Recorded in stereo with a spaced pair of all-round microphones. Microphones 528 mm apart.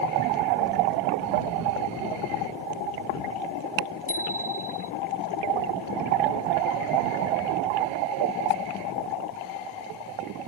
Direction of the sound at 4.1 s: 70° right (ahead or behind).